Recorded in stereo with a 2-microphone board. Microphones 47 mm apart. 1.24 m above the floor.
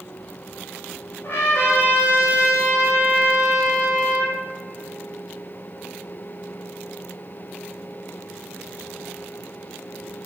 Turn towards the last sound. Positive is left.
turn(degrees=55)  # may be behind; listen again after turning